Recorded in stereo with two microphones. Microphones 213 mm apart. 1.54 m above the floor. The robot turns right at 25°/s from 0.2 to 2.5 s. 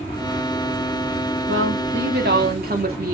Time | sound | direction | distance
1.5 | a woman speaking | 70° right (ahead or behind) | 3.5 m